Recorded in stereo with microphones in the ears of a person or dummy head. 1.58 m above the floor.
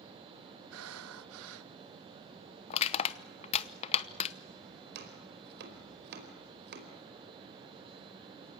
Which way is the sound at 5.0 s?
60° right (ahead or behind).